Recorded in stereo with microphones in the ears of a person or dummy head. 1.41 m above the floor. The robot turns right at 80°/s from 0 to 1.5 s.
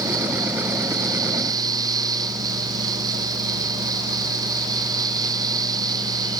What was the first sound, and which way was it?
Only background noise.